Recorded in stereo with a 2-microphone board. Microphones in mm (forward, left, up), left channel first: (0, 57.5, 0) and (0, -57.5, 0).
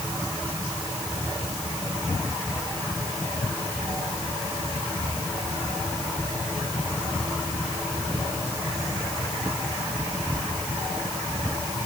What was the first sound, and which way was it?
Only background noise.